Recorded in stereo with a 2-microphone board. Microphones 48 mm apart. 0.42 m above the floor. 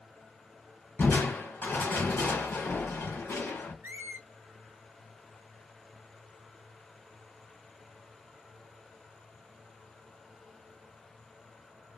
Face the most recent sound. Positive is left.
turn(degrees=-45)  # may be behind; listen again after turning